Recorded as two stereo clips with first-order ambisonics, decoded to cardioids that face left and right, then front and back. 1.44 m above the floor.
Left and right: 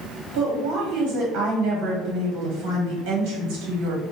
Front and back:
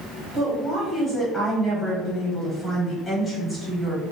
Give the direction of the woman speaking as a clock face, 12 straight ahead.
2 o'clock.